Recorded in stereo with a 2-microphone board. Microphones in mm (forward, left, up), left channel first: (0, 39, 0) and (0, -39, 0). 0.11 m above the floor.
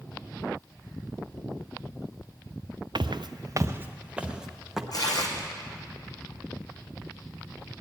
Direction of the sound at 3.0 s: 75° right (ahead or behind).